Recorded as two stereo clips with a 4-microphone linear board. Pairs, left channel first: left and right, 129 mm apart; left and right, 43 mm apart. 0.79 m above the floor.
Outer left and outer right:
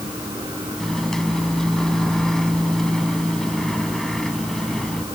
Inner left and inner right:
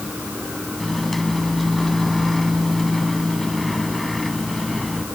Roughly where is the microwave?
Centre.